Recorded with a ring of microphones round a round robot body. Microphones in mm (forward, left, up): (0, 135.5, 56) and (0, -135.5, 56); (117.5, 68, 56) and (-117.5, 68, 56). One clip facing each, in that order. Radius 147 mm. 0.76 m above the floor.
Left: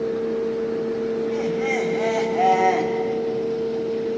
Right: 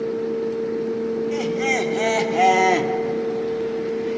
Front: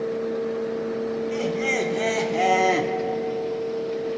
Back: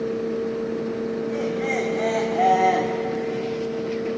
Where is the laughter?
55° right, 2.5 m.